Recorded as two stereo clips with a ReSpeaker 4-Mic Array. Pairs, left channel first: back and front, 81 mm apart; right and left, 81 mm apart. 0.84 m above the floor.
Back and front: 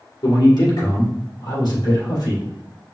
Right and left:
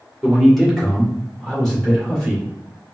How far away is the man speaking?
About 1.9 m.